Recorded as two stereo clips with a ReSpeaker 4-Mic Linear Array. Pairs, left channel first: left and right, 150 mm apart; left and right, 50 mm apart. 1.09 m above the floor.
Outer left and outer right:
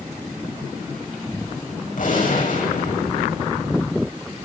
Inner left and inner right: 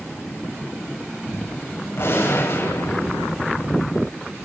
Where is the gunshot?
65° left (ahead or behind), 7 m.